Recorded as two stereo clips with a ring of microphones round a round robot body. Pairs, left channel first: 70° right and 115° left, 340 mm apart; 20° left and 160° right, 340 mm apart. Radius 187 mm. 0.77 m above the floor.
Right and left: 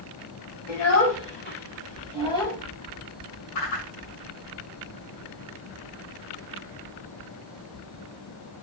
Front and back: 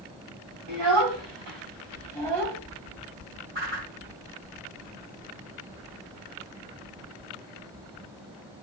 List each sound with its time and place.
0.7 s a child speaking: 115° right, 3.5 m; by 2.6 s 150° right, 3.5 m
3.5 s a whoosh: 100° right, 5.5 m